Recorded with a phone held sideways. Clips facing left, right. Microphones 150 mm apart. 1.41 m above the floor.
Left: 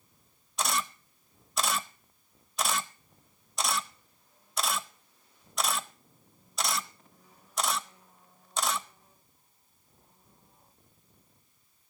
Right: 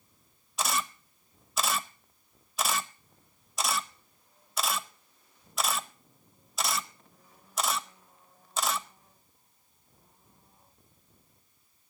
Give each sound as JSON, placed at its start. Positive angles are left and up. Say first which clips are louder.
{"t": 0.6, "sound": "a camera shutter", "louder": "even", "side_deg": 0, "distance_m": 0.8}